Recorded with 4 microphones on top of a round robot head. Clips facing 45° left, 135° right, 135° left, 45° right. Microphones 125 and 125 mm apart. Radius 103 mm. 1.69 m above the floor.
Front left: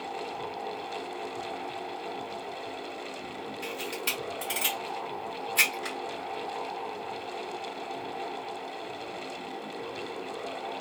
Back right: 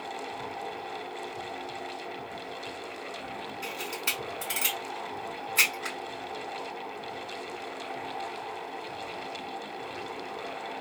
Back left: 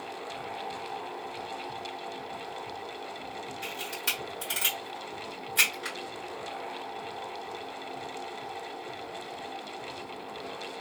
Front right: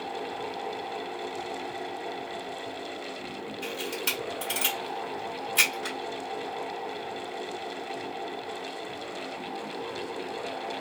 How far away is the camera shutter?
About 1.3 m.